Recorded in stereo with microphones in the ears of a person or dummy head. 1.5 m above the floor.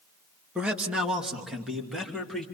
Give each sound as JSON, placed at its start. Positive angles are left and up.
{"t": 0.6, "sound": "a man speaking", "side_deg": -5, "distance_m": 1.7}